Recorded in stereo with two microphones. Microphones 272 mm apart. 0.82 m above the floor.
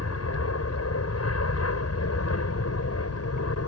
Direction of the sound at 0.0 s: 65° left (ahead or behind).